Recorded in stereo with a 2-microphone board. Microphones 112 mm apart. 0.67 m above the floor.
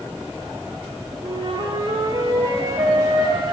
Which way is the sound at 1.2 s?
40° right (ahead or behind).